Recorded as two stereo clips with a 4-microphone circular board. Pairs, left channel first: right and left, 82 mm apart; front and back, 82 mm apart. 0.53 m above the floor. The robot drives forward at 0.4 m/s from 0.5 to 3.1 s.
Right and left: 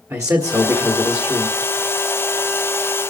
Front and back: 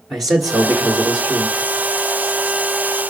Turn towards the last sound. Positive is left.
turn(degrees=140)